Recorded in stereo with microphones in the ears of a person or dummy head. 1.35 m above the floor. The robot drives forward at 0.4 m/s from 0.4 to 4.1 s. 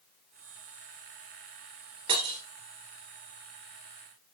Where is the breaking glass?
35° right (ahead or behind), 2 m; by 2.4 s 30° right (ahead or behind), 2 m.